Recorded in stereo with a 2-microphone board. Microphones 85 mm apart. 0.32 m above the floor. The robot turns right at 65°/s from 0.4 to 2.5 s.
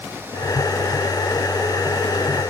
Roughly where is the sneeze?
I don't hear a sneeze.